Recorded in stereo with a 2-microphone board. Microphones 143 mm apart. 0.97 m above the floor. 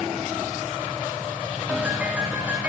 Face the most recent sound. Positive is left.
turn(degrees=-10)  # may be behind; listen again after turning